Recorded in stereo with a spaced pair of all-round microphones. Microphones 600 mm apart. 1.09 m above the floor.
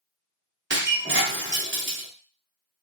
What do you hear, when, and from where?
0.7 s breaking glass: 20° right (ahead or behind), 0.7 m